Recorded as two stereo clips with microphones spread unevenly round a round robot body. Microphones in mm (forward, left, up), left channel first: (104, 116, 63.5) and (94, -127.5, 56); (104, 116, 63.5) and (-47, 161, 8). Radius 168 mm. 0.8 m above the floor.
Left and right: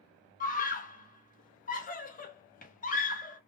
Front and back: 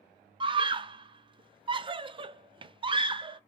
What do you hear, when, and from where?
0.4 s a scream: 140° left, 0.7 m